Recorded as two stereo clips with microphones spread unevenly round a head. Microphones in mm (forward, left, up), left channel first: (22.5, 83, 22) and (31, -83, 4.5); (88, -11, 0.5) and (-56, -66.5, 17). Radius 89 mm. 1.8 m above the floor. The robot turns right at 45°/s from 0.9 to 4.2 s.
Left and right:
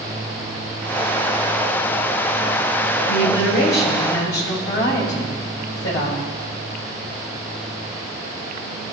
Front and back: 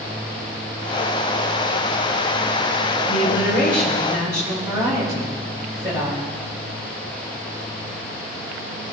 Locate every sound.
3.0 s a woman speaking: 75° left, 7 m; by 6.3 s 125° left, 7 m